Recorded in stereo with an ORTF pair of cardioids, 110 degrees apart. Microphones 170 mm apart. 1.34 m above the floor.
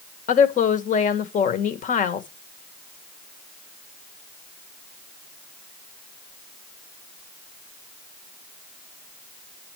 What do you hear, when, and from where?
0.3 s a woman speaking: 50° left, 1.7 m